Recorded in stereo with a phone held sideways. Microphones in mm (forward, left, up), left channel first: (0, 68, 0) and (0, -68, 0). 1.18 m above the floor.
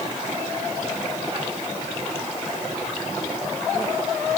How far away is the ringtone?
I don't hear a ringtone.